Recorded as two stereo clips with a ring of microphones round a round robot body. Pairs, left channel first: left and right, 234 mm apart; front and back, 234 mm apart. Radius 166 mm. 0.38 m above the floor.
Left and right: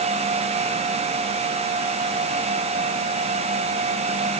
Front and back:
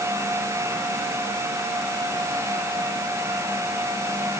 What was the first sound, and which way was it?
Only background noise.